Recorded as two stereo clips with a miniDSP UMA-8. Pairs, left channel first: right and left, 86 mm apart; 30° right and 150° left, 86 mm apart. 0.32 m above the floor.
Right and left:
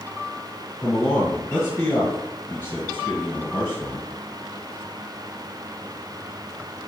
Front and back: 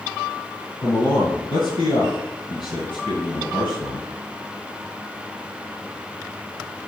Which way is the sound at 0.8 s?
25° right.